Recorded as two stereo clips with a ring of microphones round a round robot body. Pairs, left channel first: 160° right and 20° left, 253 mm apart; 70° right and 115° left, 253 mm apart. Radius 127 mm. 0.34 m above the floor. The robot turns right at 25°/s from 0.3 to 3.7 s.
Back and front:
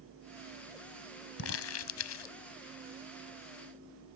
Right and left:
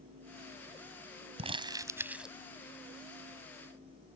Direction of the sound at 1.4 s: 175° left.